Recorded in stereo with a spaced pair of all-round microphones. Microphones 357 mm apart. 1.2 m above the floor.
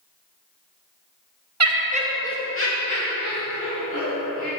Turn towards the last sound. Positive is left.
turn(degrees=75)  # may be behind; listen again after turning